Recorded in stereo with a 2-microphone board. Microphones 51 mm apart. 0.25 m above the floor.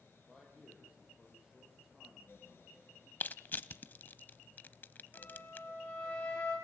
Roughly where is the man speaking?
Centre.